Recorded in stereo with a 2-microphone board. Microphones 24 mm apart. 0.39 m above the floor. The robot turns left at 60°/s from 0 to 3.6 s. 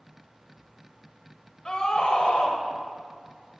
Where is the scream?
140° left, 1.3 m; by 2.6 s 85° left, 1.3 m.